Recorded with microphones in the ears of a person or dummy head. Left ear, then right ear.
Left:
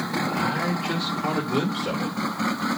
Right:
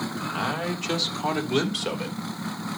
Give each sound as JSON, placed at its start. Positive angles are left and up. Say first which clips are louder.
{"t": 0.2, "sound": "a man speaking", "louder": "left 2 dB", "side_deg": -75, "distance_m": 3.0}